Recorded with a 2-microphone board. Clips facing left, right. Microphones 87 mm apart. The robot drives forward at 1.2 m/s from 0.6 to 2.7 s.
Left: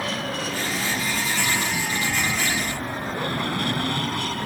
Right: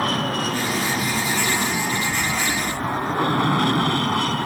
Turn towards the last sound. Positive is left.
turn(degrees=-55)  # may be behind; listen again after turning